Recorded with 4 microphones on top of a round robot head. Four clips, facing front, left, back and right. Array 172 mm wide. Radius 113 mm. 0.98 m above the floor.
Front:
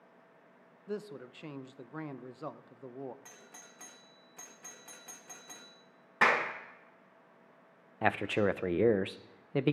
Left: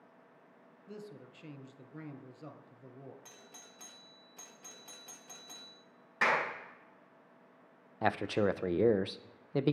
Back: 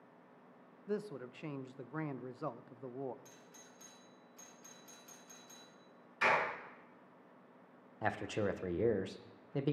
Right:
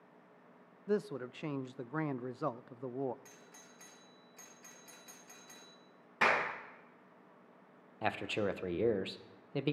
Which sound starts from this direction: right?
A man speaking, at 0.9 s.